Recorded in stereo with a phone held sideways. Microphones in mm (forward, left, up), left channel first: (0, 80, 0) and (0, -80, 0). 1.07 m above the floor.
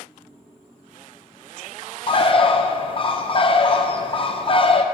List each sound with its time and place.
2.1 s a bird: 35° left (ahead or behind), 0.7 m